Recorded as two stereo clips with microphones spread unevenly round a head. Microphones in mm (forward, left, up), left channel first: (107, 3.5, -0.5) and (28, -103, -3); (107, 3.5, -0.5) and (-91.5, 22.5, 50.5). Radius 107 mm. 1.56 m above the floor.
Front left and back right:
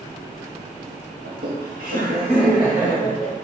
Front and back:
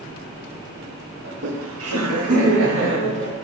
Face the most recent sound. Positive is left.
turn(degrees=145)